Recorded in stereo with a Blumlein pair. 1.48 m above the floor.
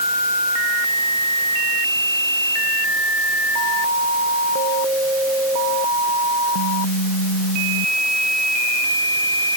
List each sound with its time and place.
Only background noise.